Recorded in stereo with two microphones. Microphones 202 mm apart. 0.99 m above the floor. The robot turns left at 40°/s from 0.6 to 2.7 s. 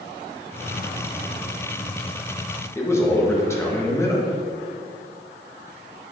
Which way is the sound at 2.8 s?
15° left (ahead or behind).